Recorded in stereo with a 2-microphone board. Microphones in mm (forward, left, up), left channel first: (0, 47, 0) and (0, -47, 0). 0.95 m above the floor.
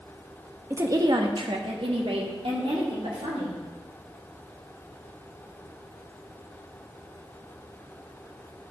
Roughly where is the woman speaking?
Right.